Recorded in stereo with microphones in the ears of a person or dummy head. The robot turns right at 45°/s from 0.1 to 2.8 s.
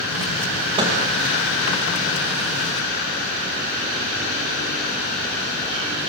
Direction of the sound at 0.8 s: 25° right (ahead or behind).